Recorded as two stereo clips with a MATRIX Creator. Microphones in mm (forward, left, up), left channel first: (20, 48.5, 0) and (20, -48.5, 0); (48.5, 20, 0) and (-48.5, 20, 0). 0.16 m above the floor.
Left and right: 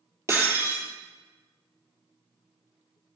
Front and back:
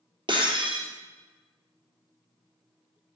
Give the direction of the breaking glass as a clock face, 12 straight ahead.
5 o'clock.